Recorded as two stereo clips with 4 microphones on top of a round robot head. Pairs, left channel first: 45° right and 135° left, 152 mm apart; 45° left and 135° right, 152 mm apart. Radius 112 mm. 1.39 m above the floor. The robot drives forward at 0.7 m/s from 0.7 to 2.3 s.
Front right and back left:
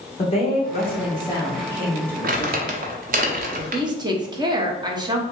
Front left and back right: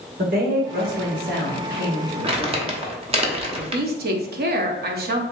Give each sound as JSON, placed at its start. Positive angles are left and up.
{"t": 0.2, "sound": "a woman speaking", "azimuth_deg": -100, "distance_m": 1.6}
{"t": 2.2, "sound": "crumpling", "azimuth_deg": 170, "distance_m": 0.8}
{"t": 3.6, "sound": "a woman speaking", "azimuth_deg": -160, "distance_m": 0.9}